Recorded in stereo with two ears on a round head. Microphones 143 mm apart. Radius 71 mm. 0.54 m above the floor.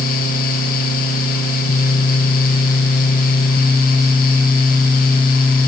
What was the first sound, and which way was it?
Only background noise.